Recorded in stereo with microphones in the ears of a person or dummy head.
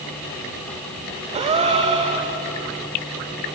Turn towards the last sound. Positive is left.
turn(degrees=-25)  # may be behind; listen again after turning